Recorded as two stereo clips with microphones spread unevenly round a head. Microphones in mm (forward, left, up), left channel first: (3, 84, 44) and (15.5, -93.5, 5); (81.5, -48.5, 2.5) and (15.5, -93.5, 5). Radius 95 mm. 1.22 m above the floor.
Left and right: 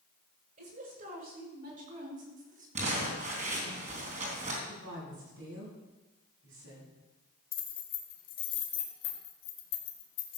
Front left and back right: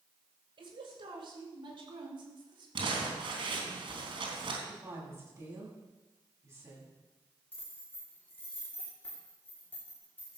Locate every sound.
0.6 s a woman speaking: 130° right, 6.5 m; by 3.8 s 135° right, 3 m
2.8 s crumpling: 145° right, 3.5 m
4.7 s a woman speaking: 95° right, 8 m
7.5 s keys jangling: 115° left, 1.9 m